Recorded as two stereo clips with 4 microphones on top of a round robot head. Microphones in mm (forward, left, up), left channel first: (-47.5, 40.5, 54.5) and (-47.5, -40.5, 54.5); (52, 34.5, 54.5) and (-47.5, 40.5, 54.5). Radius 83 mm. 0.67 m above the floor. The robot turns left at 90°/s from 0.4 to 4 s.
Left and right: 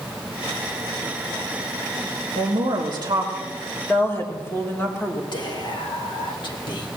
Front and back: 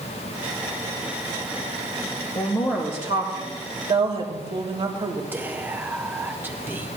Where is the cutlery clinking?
No cutlery clinking in this recording.